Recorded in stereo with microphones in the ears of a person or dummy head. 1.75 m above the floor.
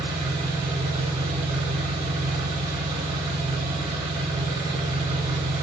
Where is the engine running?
30° right (ahead or behind), 0.8 m.